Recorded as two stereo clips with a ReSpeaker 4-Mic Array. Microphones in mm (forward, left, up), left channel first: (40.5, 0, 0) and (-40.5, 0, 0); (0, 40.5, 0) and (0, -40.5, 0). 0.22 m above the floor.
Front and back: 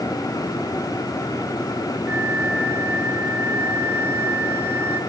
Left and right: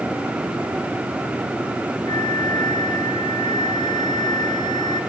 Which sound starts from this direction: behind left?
A flute, at 2.1 s.